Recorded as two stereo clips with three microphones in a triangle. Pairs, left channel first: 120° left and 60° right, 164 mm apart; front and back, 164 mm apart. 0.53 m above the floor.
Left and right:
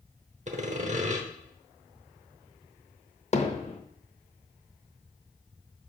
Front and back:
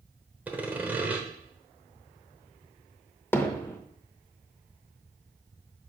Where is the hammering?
75° left, 0.6 m.